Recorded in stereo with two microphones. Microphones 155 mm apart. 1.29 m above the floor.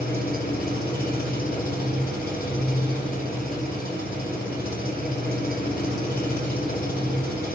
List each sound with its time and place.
0.0 s an engine running: 90° left, 7 m